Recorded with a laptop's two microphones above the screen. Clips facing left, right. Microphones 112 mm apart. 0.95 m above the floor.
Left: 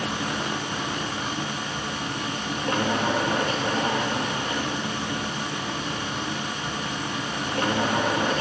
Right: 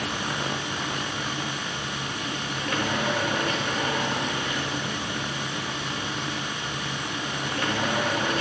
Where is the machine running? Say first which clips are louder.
Left 2 dB; 35° left (ahead or behind), 1.4 m.